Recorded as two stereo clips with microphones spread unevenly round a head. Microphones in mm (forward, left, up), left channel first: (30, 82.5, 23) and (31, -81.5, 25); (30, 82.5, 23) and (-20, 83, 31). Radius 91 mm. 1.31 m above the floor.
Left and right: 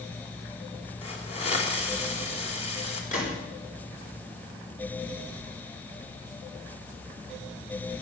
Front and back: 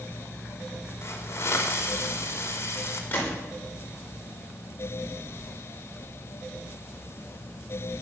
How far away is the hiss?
About 3 m.